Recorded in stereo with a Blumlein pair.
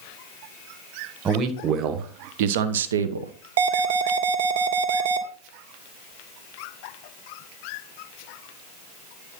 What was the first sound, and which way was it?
A man speaking, 25° right.